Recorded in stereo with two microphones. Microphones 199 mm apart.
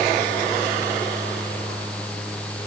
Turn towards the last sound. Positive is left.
No sound to turn to.